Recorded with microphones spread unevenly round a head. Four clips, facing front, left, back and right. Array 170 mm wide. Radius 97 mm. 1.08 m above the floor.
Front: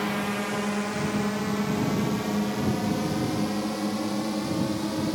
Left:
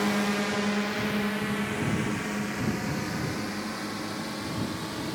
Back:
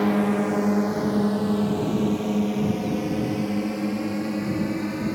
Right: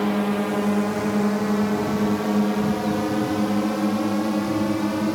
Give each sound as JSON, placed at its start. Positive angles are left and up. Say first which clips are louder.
{"t": 0.0, "sound": "a drone", "louder": "right 5 dB, back 7 dB", "azimuth_deg": -150}